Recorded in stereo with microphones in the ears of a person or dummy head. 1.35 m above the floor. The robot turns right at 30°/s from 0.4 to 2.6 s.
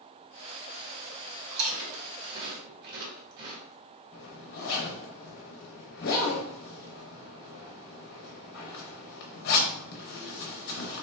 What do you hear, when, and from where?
1.5 s chewing: 85° right, 1.5 m; by 3.6 s 55° right (ahead or behind), 1.5 m
4.1 s a zipper: 55° left (ahead or behind), 1.1 m